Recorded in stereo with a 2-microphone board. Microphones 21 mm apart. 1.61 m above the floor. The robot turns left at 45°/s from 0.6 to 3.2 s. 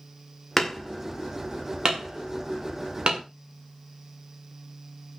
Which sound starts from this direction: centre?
Hammering, at 0.6 s.